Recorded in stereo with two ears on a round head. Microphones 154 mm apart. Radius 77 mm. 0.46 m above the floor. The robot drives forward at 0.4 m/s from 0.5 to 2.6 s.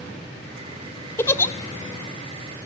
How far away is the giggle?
About 0.9 m.